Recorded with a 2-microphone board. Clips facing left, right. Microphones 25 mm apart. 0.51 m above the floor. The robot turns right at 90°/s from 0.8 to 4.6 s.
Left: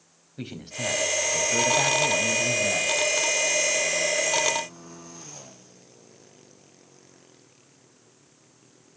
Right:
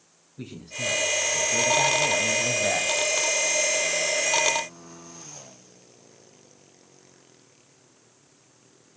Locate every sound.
0.4 s a man speaking: 80° left, 3.5 m; by 3.0 s 85° right, 3.5 m